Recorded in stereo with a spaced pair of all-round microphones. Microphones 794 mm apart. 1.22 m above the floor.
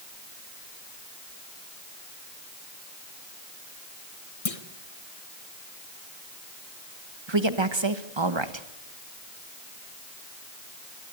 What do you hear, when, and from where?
4.5 s a clunk: 45° left (ahead or behind), 1.5 m
7.3 s a woman speaking: 35° right (ahead or behind), 1.6 m